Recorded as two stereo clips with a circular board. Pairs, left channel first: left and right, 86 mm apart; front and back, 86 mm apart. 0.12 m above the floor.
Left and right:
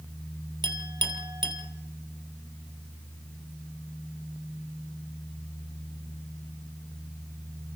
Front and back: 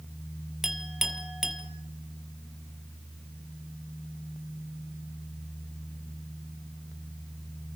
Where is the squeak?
No squeak in this recording.